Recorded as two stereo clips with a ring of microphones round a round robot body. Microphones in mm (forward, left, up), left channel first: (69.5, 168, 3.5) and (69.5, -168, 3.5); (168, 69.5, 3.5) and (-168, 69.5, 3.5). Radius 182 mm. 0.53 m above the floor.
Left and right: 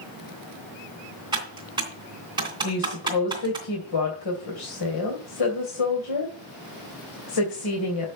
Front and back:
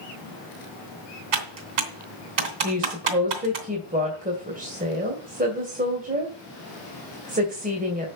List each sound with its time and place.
1.3 s typing on a keyboard: 170° right, 2.5 m
2.6 s a woman speaking: 115° left, 2.5 m